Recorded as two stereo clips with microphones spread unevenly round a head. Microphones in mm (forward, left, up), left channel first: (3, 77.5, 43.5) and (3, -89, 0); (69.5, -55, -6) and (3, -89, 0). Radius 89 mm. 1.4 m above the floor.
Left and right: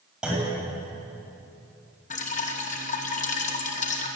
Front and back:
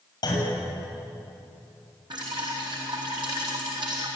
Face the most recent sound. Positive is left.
turn(degrees=140)